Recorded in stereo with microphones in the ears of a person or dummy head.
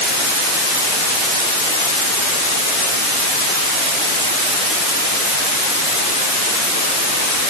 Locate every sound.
Only background noise.